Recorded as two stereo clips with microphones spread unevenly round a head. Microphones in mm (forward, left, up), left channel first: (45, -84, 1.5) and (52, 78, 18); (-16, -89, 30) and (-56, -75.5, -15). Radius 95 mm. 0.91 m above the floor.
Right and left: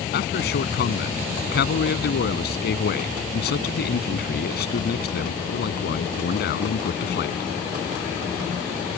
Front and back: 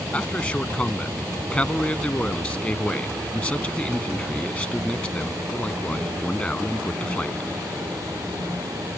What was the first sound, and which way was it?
A man speaking, 75° right.